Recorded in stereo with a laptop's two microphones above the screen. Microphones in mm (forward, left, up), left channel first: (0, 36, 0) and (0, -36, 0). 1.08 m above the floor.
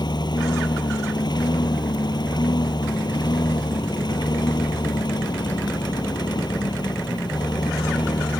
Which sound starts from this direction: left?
A lawn mower, at 0.0 s.